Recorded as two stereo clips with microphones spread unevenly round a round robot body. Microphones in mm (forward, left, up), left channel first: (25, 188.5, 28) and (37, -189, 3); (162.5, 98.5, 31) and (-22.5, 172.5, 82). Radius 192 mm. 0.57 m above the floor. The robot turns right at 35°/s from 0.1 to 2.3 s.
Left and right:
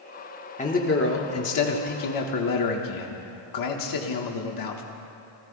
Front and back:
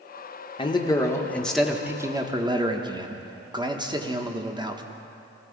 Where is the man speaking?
20° left, 1.4 m; by 4.8 s 80° left, 1.4 m.